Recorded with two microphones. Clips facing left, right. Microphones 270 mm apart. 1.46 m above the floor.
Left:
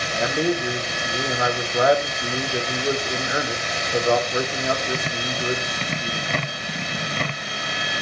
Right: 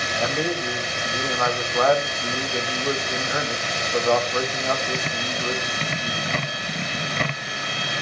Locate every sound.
0.1 s a man speaking: 15° left (ahead or behind), 0.9 m